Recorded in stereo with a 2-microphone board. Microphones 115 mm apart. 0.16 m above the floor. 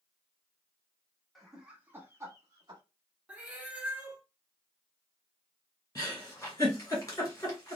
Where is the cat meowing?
10° right (ahead or behind), 0.8 m.